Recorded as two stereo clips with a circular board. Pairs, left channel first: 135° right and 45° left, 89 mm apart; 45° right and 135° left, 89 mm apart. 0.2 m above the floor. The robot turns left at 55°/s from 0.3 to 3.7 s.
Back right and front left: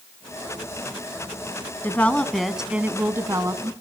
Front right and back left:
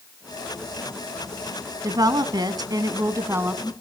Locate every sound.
1.8 s a woman speaking: 165° left, 1.6 m; by 3.7 s 65° left, 1.6 m